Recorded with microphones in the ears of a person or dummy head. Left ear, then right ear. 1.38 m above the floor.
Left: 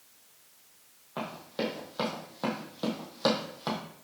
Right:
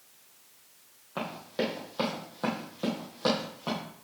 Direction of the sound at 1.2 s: Centre (ahead or behind).